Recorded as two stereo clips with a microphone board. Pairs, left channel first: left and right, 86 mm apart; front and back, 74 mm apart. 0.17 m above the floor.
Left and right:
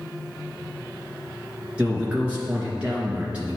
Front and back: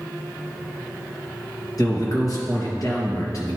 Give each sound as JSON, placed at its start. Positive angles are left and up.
{"t": 1.8, "sound": "a man speaking", "azimuth_deg": -15, "distance_m": 2.5}